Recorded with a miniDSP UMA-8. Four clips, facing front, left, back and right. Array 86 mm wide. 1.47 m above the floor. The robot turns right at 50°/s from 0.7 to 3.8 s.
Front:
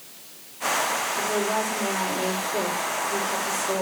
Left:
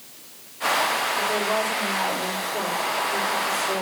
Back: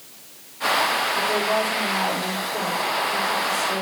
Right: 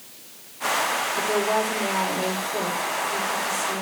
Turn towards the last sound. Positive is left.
turn(degrees=30)